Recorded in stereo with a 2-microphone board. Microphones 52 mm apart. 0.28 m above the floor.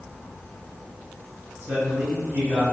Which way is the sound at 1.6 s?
45° right (ahead or behind).